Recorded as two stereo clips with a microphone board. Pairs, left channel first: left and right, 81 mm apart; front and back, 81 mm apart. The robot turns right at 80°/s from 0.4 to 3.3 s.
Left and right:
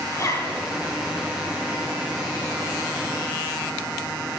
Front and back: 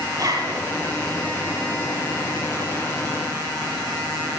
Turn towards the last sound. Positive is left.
turn(degrees=10)